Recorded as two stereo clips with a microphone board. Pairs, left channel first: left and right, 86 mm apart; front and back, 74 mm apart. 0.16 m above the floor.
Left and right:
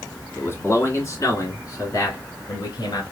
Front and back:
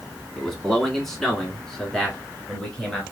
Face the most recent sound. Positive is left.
turn(degrees=75)